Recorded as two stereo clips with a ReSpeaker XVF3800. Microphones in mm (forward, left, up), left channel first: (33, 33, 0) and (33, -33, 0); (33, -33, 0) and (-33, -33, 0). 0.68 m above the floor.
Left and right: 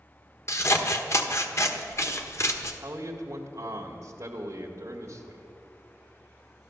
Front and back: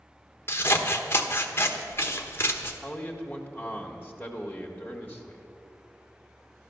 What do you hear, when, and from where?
0.5 s scissors: 50° left, 1.2 m
2.8 s a man speaking: 65° right, 1.5 m